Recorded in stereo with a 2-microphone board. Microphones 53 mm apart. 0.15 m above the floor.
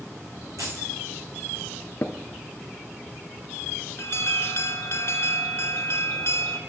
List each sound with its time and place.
0.6 s keys jangling: 80° right, 7.5 m
2.0 s tapping: 45° left (ahead or behind), 1.3 m
4.0 s an alarm: 50° left (ahead or behind), 2.5 m